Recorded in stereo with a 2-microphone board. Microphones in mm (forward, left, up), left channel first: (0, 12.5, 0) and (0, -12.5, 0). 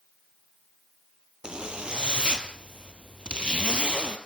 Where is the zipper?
35° right (ahead or behind), 2.5 m.